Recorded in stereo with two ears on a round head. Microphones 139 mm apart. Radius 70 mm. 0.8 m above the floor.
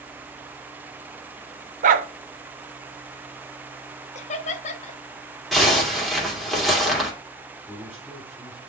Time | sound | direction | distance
1.8 | a dog barking | 50° right (ahead or behind) | 0.6 m
4.2 | laughter | 45° left (ahead or behind) | 0.8 m
5.5 | a zipper | centre (ahead or behind) | 2 m
7.7 | a man speaking | 10° right (ahead or behind) | 3 m